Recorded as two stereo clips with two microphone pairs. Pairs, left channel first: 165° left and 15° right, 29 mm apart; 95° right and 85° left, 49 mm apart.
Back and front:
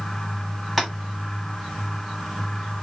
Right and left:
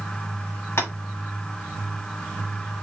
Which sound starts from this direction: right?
Tapping, at 0.8 s.